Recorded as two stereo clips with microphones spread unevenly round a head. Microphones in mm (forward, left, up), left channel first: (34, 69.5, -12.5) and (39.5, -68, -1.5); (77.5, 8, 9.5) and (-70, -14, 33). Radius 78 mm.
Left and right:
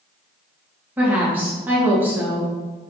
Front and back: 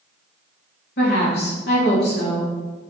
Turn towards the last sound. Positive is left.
turn(degrees=-10)